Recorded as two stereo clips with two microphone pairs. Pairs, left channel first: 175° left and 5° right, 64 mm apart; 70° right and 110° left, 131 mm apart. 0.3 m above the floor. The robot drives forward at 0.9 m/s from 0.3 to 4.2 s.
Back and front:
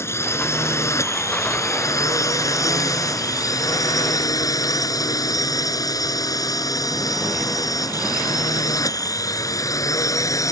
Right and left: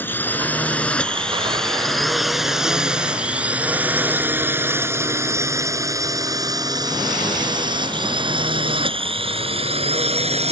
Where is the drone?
145° right; by 10.5 s 145° left.